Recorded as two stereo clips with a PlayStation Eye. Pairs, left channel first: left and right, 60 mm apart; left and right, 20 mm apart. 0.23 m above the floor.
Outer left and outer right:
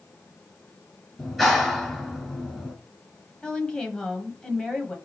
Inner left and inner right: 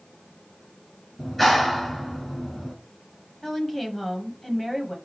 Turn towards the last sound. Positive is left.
turn(degrees=15)  # may be behind; listen again after turning